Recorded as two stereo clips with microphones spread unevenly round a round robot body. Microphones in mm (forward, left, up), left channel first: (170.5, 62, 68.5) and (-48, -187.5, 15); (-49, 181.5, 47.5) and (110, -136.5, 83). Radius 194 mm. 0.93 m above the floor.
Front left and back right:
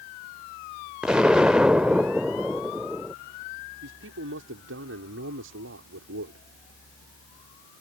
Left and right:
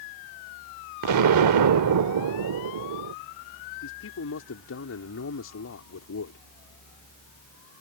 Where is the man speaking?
170° left.